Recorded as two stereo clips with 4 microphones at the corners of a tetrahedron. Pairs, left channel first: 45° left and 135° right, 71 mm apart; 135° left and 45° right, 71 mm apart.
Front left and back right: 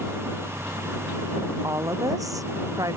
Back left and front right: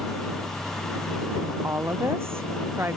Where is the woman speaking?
95° right; by 3.0 s 100° right.